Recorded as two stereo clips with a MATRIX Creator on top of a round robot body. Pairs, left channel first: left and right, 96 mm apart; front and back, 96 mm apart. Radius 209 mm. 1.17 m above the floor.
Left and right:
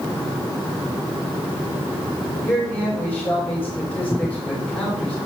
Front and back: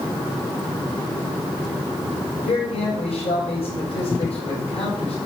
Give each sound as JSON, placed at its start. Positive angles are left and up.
{"t": 2.4, "sound": "a man speaking", "azimuth_deg": 15, "distance_m": 6.0}